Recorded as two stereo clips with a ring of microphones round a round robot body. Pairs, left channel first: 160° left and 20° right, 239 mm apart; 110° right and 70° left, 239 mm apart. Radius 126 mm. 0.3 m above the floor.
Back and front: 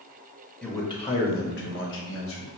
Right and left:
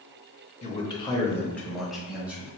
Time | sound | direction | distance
0.6 | a man speaking | 125° right | 0.9 m